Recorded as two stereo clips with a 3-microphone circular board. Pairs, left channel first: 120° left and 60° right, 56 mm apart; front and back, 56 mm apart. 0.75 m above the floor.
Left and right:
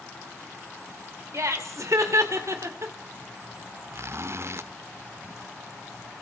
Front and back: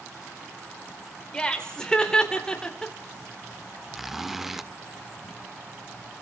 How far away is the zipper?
About 0.7 m.